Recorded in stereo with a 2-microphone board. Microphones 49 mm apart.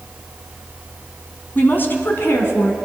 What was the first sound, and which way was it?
A woman speaking, 40° left (ahead or behind).